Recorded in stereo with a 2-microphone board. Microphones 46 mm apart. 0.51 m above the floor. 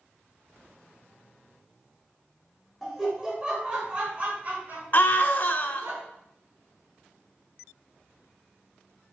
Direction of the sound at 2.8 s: 10° right (ahead or behind).